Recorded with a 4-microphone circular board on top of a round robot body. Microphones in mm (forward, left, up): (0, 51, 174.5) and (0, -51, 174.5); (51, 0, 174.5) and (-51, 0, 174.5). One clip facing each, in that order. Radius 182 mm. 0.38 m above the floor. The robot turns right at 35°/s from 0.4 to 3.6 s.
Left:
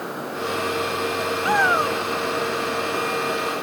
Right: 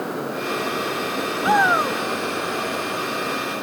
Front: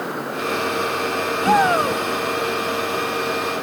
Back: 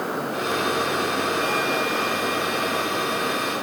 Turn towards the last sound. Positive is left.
turn(degrees=55)